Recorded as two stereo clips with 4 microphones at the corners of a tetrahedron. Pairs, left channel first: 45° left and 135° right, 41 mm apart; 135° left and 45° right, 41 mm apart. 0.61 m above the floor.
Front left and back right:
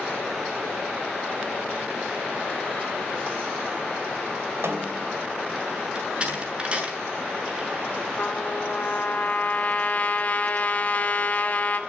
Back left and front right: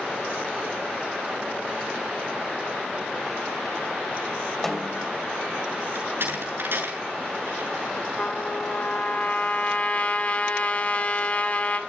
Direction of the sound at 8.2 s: 95° left.